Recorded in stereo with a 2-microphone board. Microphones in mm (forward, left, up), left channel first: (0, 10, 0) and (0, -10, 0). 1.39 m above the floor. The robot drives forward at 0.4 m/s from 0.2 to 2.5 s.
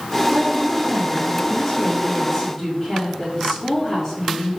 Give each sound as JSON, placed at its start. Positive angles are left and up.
{"t": 0.3, "sound": "a woman speaking", "side_deg": -15, "distance_m": 0.8}